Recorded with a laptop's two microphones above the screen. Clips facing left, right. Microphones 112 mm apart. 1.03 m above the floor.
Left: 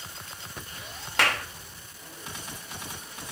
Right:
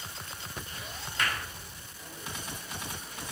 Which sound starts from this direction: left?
A clap, at 1.2 s.